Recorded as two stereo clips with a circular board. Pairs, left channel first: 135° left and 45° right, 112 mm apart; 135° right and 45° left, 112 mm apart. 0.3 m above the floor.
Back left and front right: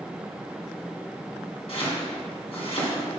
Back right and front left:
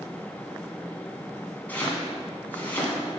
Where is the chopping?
150° left, 2.5 m.